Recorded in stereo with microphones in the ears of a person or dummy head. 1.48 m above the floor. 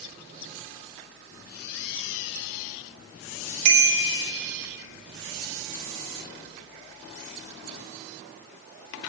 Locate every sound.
3.6 s a bicycle bell: 60° right (ahead or behind), 3.5 m